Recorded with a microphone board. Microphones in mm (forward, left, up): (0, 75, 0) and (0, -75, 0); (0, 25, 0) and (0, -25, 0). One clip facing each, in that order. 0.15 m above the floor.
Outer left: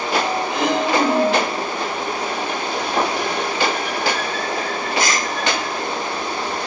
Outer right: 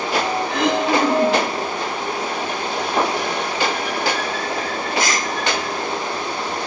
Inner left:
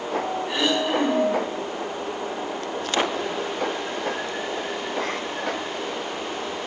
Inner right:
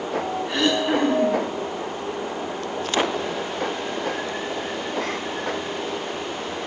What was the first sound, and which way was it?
Throat clearing, 10° left (ahead or behind).